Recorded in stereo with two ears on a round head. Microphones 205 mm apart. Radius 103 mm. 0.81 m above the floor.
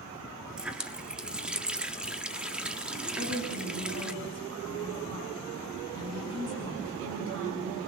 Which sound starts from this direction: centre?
A running tap, at 0.6 s.